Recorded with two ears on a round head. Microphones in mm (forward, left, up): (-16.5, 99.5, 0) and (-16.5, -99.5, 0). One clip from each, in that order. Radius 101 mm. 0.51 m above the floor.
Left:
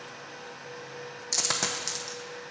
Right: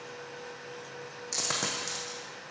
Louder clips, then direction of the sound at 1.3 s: Left 3 dB; 20° left (ahead or behind).